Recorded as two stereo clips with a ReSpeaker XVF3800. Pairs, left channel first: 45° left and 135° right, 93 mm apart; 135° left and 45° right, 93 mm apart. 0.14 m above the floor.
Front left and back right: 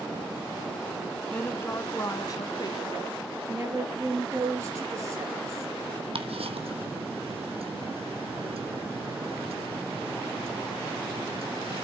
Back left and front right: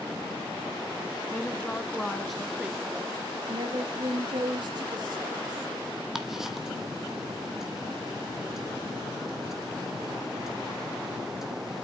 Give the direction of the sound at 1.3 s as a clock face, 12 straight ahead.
9 o'clock.